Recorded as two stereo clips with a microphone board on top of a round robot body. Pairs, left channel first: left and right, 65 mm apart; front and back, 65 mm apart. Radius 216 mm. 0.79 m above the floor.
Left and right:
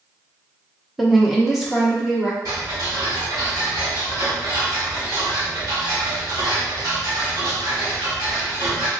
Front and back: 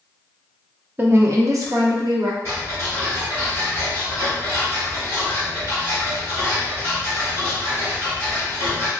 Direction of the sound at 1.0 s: Straight behind.